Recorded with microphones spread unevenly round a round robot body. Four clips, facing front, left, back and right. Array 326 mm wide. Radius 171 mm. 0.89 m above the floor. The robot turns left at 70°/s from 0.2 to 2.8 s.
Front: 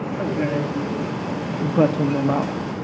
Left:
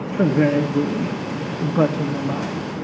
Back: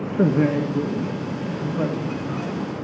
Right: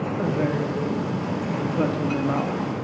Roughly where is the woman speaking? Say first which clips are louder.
Left 9 dB, back 5 dB; behind left.